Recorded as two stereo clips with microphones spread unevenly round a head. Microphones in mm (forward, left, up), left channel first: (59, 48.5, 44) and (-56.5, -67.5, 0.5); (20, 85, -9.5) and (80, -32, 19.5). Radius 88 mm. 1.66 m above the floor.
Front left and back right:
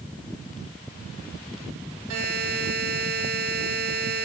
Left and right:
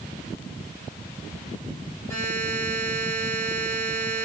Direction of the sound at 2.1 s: 155° right.